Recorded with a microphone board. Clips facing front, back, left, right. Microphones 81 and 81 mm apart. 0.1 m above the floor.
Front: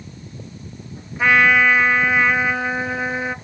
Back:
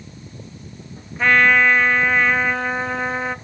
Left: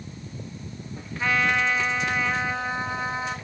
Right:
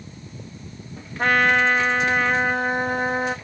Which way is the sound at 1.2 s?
80° right.